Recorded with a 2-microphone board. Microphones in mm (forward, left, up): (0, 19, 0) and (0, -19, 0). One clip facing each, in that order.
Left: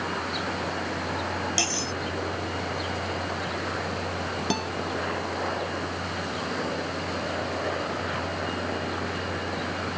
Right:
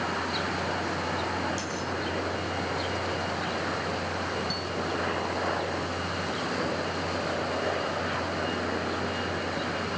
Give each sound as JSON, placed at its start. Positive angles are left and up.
{"t": 1.6, "sound": "cutlery clinking", "side_deg": 85}
{"t": 4.5, "sound": "a guitar", "side_deg": 85}